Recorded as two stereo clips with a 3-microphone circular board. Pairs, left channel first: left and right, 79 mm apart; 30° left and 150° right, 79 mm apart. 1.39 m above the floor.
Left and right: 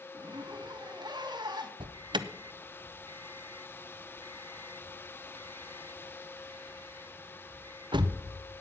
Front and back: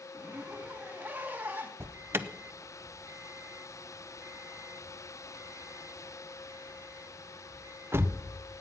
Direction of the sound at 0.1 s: 85° right.